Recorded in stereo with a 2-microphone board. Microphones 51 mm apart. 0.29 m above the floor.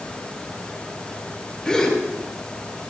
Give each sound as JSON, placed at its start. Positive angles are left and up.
{"t": 1.6, "sound": "a gasp", "side_deg": 10, "distance_m": 5.5}